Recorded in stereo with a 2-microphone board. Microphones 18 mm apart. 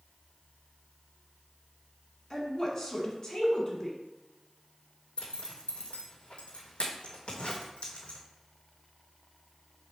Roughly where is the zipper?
Left.